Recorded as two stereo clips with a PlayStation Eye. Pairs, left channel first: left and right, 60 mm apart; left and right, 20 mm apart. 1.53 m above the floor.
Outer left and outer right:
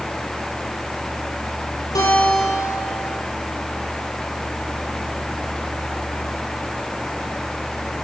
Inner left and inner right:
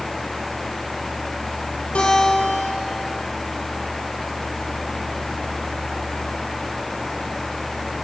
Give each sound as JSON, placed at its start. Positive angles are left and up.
{"t": 1.9, "sound": "a guitar", "side_deg": 85, "distance_m": 7.5}